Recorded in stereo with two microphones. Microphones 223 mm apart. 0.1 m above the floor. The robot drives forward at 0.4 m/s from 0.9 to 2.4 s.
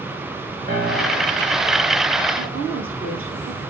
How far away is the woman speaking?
About 3.5 m.